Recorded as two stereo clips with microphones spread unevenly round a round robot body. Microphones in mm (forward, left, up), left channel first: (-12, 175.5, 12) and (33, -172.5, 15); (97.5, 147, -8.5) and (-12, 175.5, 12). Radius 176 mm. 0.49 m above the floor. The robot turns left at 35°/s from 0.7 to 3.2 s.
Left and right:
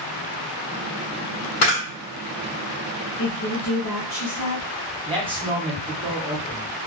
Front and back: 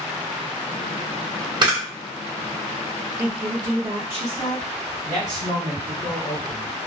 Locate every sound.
1.6 s a camera shutter: 110° left, 1.6 m; by 1.8 s 105° left, 1.6 m
3.2 s a woman speaking: 90° left, 1.3 m
5.0 s a man speaking: 150° right, 0.9 m